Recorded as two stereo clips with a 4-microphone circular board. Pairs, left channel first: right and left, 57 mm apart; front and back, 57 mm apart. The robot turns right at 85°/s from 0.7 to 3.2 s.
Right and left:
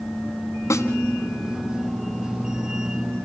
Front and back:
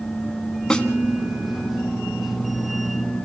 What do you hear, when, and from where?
0.7 s a snare drum: 75° right, 1.6 m; by 0.9 s 65° right, 1.6 m